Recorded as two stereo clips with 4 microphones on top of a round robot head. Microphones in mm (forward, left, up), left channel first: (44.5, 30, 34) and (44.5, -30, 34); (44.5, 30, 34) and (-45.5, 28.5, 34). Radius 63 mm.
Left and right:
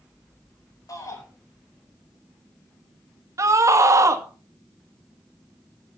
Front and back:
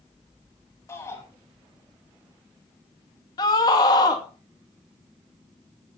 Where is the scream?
55° right, 2.5 m.